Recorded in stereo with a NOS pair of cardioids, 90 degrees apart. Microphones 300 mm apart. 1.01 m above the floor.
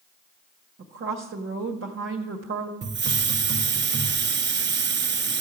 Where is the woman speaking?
40° right, 1.4 m.